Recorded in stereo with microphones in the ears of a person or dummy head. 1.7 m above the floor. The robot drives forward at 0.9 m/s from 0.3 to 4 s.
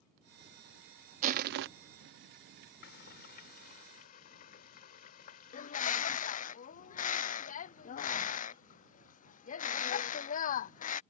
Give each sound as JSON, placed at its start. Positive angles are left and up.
{"t": 1.2, "sound": "crushing", "side_deg": -45}
{"t": 2.8, "sound": "frying", "side_deg": 60}
{"t": 5.5, "sound": "a bird", "side_deg": 45}